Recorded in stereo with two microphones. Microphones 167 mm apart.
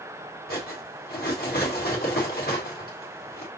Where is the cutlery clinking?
70° left (ahead or behind), 1.4 m.